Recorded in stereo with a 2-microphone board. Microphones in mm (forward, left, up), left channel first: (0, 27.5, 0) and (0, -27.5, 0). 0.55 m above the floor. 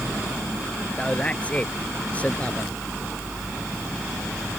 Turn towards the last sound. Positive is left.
turn(degrees=25)  # may be behind; listen again after turning